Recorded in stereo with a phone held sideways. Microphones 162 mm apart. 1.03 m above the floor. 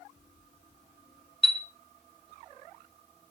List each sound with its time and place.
1.4 s a chime: centre (ahead or behind), 2.5 m